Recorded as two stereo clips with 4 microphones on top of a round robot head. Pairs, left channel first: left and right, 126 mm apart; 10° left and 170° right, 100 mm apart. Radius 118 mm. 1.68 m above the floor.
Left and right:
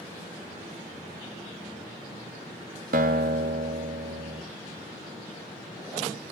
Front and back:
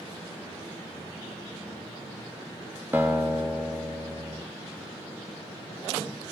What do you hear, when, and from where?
2.9 s a guitar: 90° right, 0.5 m